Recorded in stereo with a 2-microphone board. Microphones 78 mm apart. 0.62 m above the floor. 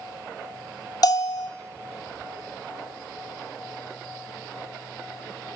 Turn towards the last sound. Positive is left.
turn(degrees=55)  # may be behind; listen again after turning